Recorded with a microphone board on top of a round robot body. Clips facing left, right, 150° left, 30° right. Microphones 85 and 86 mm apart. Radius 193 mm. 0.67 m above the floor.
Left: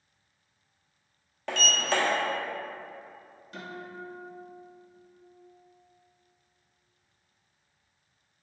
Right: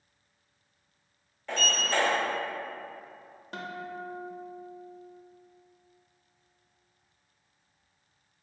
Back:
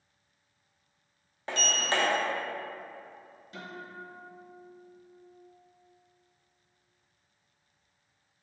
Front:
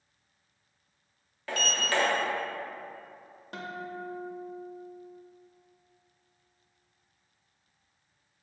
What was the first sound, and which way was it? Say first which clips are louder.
A sliding door: left 1 dB, front 1 dB; 85° left.